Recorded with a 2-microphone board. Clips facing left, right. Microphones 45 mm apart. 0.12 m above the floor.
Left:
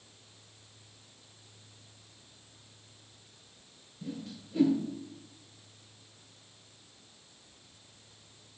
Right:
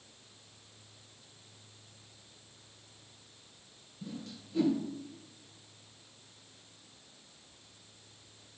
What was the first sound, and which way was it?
A whoosh, 10° left (ahead or behind).